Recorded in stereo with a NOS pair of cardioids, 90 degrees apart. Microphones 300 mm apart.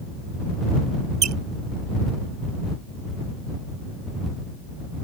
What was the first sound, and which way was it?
A squeak, 60° right.